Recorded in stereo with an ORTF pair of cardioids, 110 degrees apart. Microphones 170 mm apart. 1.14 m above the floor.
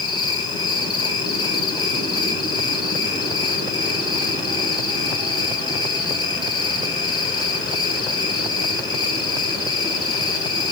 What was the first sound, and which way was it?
An insect, 25° left.